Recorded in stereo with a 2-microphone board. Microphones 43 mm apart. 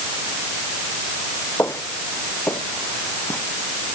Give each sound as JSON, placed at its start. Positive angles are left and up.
{"t": 1.6, "sound": "footsteps", "side_deg": 70}